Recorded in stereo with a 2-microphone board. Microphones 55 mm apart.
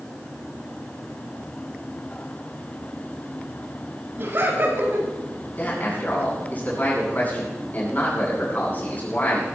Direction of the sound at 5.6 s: 30° left (ahead or behind).